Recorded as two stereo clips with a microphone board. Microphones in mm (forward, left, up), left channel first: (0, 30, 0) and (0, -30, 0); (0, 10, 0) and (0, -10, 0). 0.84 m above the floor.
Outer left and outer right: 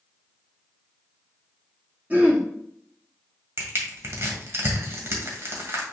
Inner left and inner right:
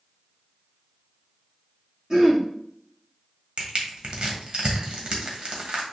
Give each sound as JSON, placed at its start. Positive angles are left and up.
{"t": 2.1, "sound": "throat clearing", "side_deg": -30, "distance_m": 1.9}
{"t": 3.6, "sound": "crushing", "side_deg": -45, "distance_m": 1.8}